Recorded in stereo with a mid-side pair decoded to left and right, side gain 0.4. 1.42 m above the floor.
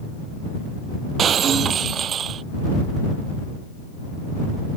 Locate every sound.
1.2 s breaking glass: 60° right